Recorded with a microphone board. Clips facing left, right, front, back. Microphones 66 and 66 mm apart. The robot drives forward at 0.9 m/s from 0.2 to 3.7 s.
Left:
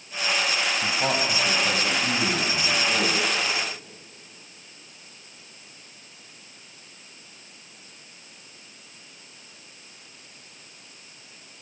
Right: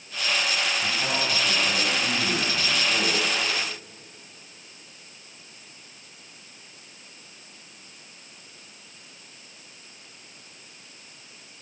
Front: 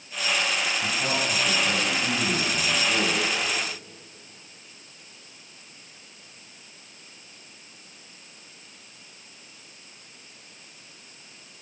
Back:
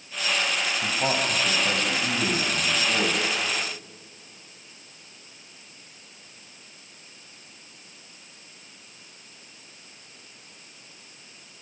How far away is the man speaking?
About 6.5 m.